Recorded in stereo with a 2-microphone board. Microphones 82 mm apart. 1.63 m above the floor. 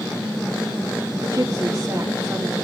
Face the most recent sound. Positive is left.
turn(degrees=-40)  # may be behind; listen again after turning